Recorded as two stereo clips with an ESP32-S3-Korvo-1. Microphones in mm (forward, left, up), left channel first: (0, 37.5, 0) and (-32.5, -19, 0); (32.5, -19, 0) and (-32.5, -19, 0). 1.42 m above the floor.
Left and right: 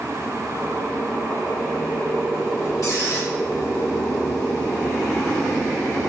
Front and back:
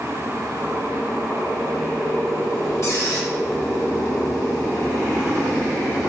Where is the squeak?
35° left, 2 m.